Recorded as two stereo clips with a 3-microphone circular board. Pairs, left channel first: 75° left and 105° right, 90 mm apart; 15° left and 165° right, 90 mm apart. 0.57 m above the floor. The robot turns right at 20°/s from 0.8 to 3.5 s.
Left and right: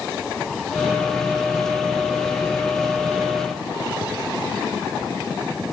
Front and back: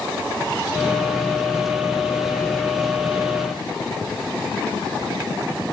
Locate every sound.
Only background noise.